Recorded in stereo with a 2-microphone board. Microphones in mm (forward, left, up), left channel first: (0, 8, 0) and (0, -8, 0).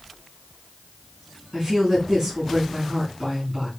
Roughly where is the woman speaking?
Right.